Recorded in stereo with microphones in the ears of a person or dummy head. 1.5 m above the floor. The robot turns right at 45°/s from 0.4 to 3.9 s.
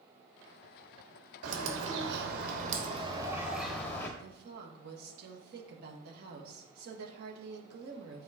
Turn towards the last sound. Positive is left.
turn(degrees=-55)  # may be behind; listen again after turning